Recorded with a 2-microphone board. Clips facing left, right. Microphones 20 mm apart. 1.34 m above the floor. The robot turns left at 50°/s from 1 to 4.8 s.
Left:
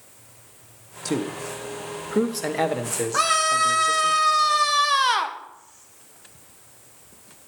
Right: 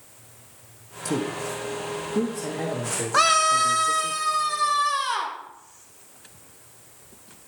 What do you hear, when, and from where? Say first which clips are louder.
1.1 s a man speaking: even; 150° left, 0.8 m; by 4.1 s 5° right, 0.8 m
3.1 s a scream: right 2 dB; 155° right, 1.1 m; by 5.4 s 120° left, 1.1 m